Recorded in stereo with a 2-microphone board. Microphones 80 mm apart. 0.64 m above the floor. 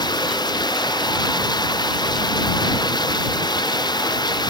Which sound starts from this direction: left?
Running water, at 0.0 s.